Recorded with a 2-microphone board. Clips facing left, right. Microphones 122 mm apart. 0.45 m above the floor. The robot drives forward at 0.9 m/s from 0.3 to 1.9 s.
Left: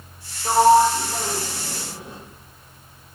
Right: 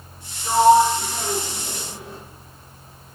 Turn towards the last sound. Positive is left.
turn(degrees=20)  # may be behind; listen again after turning